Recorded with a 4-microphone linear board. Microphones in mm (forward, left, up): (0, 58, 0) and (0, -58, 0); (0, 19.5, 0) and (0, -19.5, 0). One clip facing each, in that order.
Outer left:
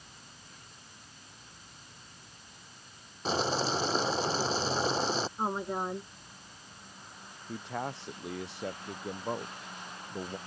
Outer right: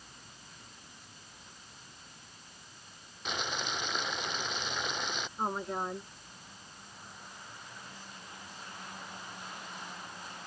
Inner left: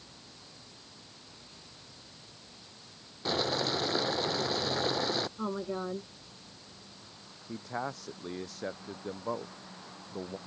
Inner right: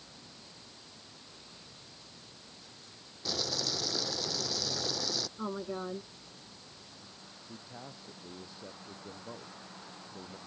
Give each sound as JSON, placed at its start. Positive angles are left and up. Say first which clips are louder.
{"t": 3.2, "sound": "boiling", "louder": "outer left 8 dB, inner left 6 dB", "side_deg": 35}
{"t": 5.4, "sound": "a woman speaking", "louder": "outer left 2 dB, inner left 2 dB", "side_deg": 5}
{"t": 7.5, "sound": "a man speaking", "louder": "outer left 13 dB, inner left 12 dB", "side_deg": 75}